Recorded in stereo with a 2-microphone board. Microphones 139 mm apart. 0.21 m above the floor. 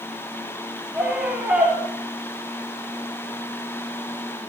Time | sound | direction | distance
0.9 | a scream | 5° right (ahead or behind) | 4 m